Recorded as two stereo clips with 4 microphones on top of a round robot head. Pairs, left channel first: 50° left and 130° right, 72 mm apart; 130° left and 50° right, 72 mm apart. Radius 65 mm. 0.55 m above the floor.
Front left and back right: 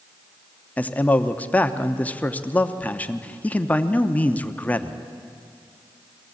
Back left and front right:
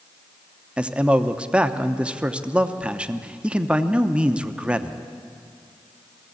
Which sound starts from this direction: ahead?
A man speaking, at 0.8 s.